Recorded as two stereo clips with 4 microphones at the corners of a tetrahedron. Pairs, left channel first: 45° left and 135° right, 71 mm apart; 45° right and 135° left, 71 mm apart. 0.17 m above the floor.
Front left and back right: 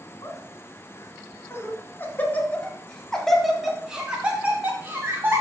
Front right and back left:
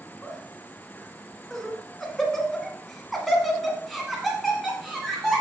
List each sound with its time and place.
0.2 s laughter: 35° left, 2.5 m; by 5.4 s 140° right, 1.9 m